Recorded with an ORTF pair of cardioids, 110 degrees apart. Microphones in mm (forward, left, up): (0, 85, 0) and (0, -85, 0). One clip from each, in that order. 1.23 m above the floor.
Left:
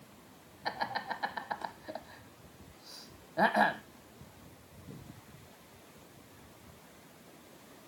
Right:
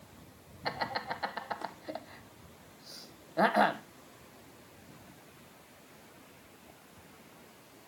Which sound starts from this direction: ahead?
Laughter, at 0.7 s.